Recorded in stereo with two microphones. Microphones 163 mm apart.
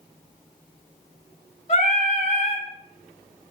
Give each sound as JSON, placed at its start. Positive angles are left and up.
{"t": 1.7, "sound": "singing", "side_deg": 50, "distance_m": 0.9}